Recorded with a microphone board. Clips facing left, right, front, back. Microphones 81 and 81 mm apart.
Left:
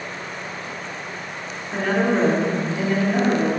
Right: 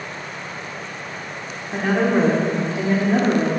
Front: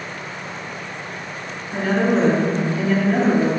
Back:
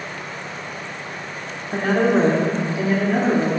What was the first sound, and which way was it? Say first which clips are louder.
A woman speaking: right 1 dB, back 1 dB; 170° right.